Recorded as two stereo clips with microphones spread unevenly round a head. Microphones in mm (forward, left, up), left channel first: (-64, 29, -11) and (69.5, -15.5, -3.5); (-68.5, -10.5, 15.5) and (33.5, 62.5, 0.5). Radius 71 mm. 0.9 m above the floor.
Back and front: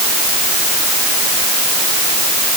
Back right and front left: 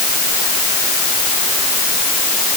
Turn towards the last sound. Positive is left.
No sound to turn to.